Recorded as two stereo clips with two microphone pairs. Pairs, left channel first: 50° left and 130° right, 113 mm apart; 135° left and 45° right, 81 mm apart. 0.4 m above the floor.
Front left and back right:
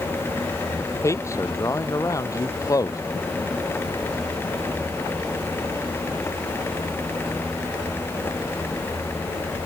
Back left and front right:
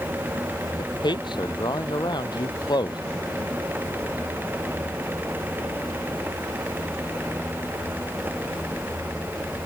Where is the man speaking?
115° left; by 3.0 s 110° left.